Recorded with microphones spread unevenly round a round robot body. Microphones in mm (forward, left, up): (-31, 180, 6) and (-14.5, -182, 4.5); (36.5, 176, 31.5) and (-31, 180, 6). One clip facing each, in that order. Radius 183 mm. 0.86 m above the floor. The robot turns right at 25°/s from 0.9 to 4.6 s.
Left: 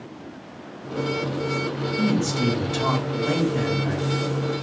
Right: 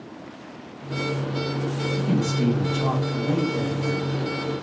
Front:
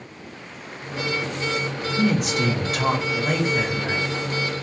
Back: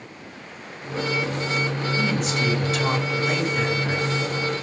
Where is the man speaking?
20° left, 1.8 m; by 4.6 s 85° left, 1.8 m.